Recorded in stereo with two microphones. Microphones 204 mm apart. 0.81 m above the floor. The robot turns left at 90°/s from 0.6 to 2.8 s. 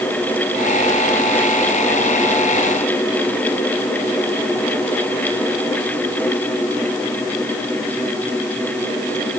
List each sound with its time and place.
Only background noise.